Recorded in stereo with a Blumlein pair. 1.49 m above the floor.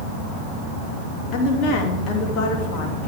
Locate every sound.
1.3 s a woman speaking: 35° left, 3 m